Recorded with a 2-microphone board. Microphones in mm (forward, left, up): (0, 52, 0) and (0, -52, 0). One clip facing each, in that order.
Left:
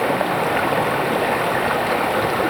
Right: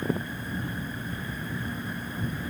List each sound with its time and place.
0.0 s running water: 85° left